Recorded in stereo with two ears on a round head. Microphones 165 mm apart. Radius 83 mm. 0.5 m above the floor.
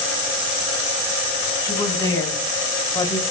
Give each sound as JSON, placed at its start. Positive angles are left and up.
{"t": 1.6, "sound": "a woman speaking", "side_deg": 20, "distance_m": 4.0}